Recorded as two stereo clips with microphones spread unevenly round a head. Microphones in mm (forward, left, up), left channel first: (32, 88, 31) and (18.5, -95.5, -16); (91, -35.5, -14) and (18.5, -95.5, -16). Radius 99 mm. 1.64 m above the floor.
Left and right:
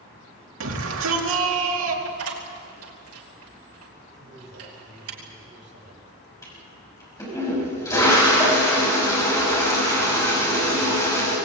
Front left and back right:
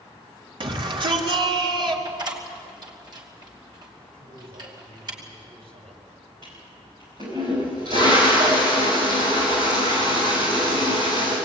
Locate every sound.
0.6 s a shout: 110° right, 4 m
2.0 s a door slam: 100° right, 5 m
4.1 s a man speaking: 135° right, 7.5 m
6.4 s a toilet flushing: 155° left, 6.5 m